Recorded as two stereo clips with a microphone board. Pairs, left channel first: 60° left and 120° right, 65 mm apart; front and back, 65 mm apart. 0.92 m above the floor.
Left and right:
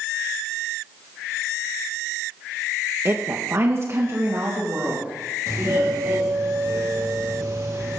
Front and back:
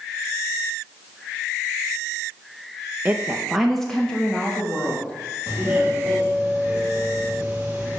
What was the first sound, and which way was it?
A woman speaking, 135° right.